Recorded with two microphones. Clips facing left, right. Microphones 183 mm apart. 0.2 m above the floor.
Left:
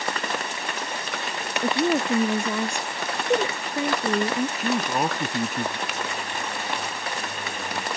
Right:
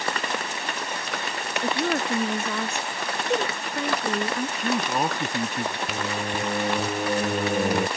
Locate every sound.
1.6 s a woman speaking: 15° left (ahead or behind)
4.6 s a man speaking: 5° left (ahead or behind)
5.9 s singing: 60° right (ahead or behind)